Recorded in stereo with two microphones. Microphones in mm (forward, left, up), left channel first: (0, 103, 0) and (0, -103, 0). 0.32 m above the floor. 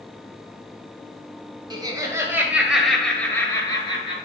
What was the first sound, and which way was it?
Laughter, 20° right (ahead or behind).